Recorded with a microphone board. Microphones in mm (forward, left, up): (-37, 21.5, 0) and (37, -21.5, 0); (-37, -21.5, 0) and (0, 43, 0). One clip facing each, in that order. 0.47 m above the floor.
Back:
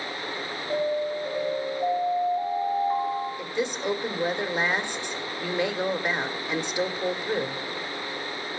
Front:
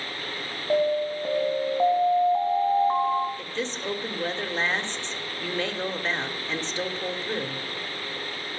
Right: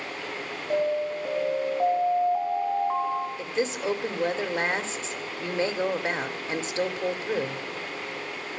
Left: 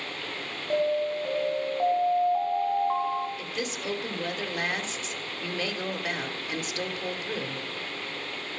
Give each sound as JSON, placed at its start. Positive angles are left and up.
{"t": 0.7, "sound": "an alarm", "azimuth_deg": -35, "distance_m": 2.5}
{"t": 3.4, "sound": "a woman speaking", "azimuth_deg": -145, "distance_m": 1.2}